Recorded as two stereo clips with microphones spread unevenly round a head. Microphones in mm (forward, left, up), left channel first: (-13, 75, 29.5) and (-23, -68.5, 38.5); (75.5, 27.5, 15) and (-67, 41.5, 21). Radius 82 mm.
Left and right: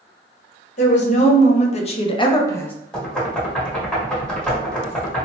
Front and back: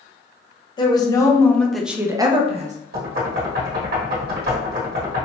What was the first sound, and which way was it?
A woman speaking, 50° left.